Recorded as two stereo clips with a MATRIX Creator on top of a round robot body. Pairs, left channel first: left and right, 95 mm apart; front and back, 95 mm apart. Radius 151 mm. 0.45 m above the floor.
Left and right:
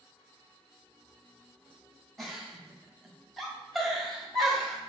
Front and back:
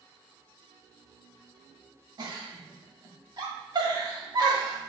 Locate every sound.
2.2 s a giggle: straight behind, 1.5 m